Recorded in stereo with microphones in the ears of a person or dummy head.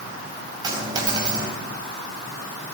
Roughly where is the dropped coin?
Right.